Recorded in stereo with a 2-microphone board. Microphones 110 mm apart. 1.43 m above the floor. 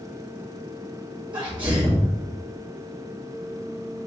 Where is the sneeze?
50° right (ahead or behind), 2 m.